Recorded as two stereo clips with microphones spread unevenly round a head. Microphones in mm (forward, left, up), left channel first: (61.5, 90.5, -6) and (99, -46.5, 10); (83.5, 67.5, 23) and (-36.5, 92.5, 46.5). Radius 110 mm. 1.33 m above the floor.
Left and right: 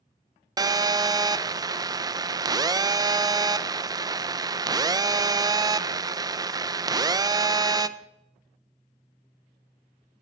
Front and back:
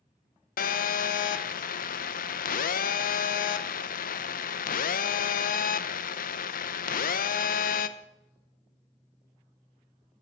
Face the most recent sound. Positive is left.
turn(degrees=-15)